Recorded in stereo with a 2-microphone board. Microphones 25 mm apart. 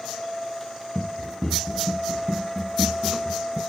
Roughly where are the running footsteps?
Centre.